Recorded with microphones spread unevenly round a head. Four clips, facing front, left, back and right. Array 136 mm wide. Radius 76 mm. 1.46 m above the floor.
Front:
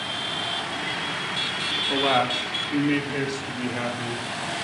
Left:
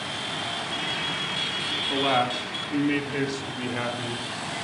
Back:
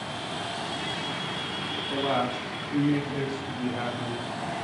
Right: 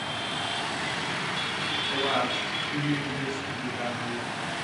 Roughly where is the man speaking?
Ahead.